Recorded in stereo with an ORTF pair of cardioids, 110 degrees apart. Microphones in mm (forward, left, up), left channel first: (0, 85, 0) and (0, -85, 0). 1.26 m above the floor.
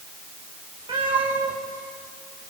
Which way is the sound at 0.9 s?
30° right.